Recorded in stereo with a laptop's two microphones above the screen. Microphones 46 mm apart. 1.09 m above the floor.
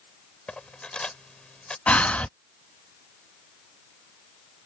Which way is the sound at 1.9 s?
30° left (ahead or behind).